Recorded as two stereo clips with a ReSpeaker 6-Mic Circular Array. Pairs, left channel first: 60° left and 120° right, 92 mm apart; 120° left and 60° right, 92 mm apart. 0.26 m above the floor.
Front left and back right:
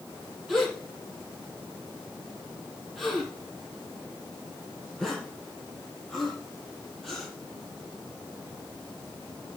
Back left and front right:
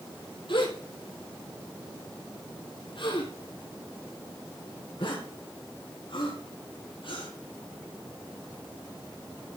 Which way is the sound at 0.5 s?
145° left.